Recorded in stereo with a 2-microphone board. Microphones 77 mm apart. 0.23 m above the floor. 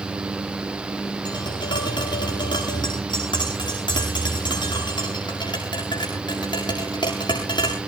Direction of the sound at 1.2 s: 80° left.